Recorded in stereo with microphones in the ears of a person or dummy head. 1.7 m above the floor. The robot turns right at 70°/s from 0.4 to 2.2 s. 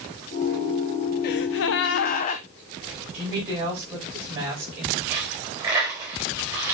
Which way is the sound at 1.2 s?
70° left.